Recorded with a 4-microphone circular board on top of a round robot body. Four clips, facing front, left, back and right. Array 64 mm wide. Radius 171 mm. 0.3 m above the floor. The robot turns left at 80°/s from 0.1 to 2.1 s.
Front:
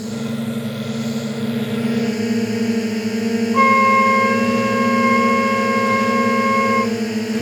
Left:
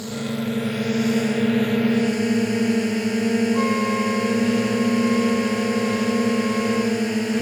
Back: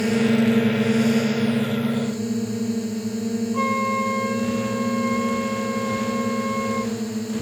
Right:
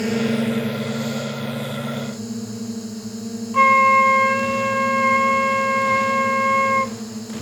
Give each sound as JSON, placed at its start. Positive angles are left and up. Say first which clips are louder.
{"t": 0.0, "sound": "a drone", "louder": "right 6 dB, back 5 dB", "azimuth_deg": -145}
{"t": 3.5, "sound": "a flute", "louder": "right 7 dB, front 11 dB", "azimuth_deg": -50}